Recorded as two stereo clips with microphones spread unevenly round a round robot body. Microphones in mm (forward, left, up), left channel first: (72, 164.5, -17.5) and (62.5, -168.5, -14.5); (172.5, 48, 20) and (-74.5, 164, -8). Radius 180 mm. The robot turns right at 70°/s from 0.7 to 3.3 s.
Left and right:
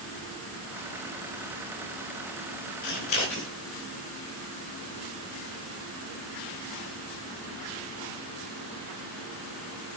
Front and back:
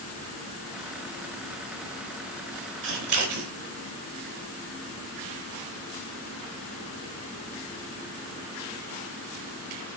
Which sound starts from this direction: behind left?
Scissors, at 2.8 s.